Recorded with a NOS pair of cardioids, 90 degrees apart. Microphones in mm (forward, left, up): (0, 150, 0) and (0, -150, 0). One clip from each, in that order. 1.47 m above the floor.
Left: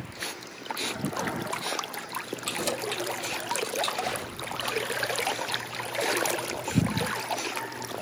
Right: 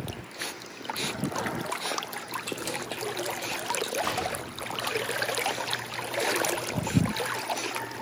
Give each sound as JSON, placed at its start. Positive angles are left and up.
{"t": 2.5, "sound": "keys jangling", "azimuth_deg": 30, "distance_m": 2.5}
{"t": 4.0, "sound": "an explosion", "azimuth_deg": -40, "distance_m": 4.0}